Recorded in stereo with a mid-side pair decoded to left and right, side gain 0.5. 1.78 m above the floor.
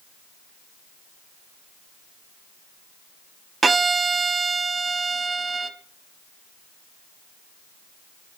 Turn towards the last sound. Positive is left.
turn(degrees=-30)